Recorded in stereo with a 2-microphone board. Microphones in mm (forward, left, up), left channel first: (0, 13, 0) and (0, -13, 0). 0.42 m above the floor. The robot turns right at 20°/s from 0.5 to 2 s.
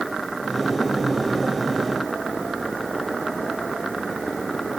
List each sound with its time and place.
Only background noise.